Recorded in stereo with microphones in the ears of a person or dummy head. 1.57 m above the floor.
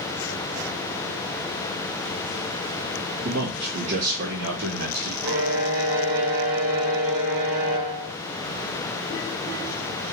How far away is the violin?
About 2.5 m.